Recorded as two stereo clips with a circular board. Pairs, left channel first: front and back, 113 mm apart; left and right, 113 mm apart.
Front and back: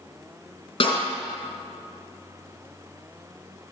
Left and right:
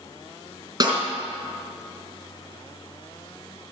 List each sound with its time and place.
0.8 s a snare drum: 35° right, 5 m